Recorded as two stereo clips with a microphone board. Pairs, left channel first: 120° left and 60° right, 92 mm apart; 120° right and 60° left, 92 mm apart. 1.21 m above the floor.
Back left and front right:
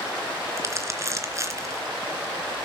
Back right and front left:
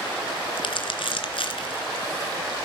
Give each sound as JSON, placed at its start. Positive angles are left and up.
{"t": 0.6, "sound": "crumpling", "azimuth_deg": -115, "distance_m": 2.5}